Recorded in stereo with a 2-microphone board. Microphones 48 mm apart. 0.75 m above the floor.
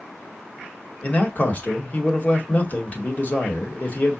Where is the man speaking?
40° left (ahead or behind), 1.1 m.